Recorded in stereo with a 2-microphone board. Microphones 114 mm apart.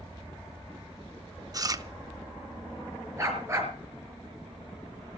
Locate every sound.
1.5 s chewing: 35° right (ahead or behind), 0.7 m
3.2 s a dog barking: 25° right (ahead or behind), 4 m